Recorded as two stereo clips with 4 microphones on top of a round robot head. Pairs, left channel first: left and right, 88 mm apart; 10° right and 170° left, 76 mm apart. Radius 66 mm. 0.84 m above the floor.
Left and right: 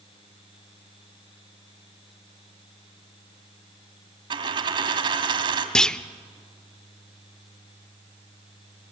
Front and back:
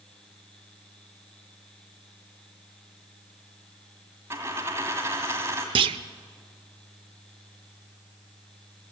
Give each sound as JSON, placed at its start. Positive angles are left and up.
{"t": 4.3, "sound": "a dropped coin", "azimuth_deg": -120, "distance_m": 2.0}
{"t": 5.8, "sound": "a clunk", "azimuth_deg": 175, "distance_m": 0.7}